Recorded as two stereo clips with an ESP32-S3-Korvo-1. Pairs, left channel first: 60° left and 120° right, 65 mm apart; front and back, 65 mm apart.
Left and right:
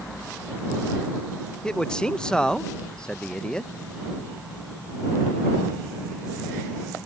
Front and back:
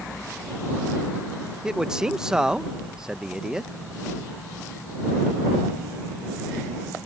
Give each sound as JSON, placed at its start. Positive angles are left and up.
{"t": 1.6, "sound": "a man speaking", "azimuth_deg": 115}